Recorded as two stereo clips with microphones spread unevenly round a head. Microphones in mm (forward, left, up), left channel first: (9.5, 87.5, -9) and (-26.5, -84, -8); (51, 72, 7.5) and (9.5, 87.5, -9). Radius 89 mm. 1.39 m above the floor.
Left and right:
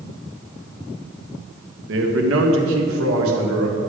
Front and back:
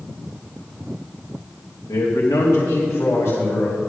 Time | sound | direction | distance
1.9 | a man speaking | 75° right | 1.3 m